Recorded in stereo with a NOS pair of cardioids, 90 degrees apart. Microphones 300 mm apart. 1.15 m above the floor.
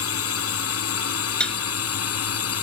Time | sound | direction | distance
0.0 | a drone | 50° left | ?
1.4 | dishes clattering | 5° left | ?